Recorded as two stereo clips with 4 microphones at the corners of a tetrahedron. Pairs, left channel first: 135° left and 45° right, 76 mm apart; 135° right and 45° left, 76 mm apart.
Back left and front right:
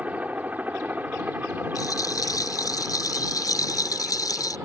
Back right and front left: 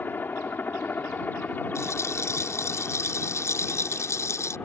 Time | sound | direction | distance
0.0 | a helicopter | 100° right | ?
1.8 | a rattle | 175° left | ?